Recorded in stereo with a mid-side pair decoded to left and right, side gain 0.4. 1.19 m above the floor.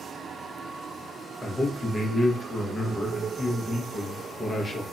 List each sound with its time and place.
1.4 s a man speaking: 35° left, 0.9 m